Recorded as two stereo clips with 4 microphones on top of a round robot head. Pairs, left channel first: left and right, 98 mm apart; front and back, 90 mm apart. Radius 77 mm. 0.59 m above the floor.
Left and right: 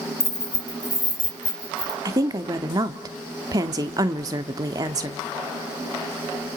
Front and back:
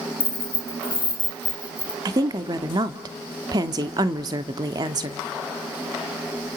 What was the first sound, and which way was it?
Keys jangling, 30° left.